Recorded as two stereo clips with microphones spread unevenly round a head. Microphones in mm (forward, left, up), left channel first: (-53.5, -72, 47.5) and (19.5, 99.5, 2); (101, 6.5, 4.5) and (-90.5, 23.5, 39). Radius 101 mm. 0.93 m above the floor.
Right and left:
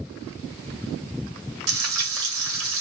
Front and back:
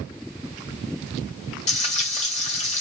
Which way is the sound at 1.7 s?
50° left.